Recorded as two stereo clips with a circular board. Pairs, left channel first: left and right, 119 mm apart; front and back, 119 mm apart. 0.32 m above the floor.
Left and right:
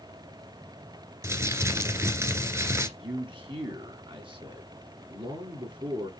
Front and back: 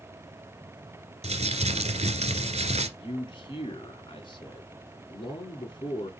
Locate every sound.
1.2 s crumpling: 155° right, 1.8 m
3.0 s a man speaking: 45° right, 3 m